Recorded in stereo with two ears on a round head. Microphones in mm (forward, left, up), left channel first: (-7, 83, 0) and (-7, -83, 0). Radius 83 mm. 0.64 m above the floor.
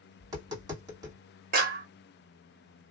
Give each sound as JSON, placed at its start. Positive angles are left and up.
{"t": 0.2, "sound": "tapping", "side_deg": -20, "distance_m": 1.7}
{"t": 1.5, "sound": "a clap", "side_deg": -45, "distance_m": 0.9}